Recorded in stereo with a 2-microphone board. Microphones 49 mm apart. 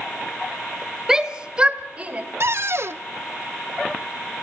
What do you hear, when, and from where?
1.1 s a shout: 10° right (ahead or behind), 1.6 m; by 2.2 s 30° right (ahead or behind), 2.5 m
2.4 s a cupboard door: 60° right (ahead or behind), 0.6 m